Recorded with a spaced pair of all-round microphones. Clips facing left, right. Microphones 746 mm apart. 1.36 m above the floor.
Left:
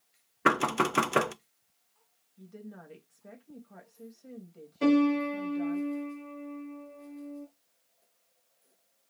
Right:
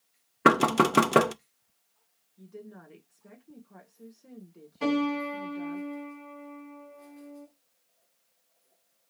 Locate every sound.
0.5 s knocking: 70° right (ahead or behind), 0.6 m
2.4 s a woman speaking: 20° left (ahead or behind), 0.9 m
4.8 s a piano: 25° right (ahead or behind), 3 m